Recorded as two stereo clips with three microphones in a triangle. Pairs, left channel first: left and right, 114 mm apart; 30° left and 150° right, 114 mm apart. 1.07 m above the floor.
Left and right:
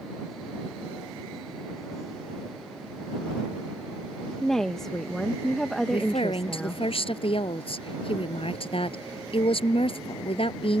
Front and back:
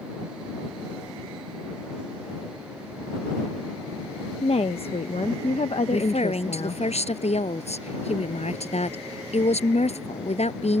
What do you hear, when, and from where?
4.4 s a woman speaking: 5° left
5.9 s a woman speaking: 55° left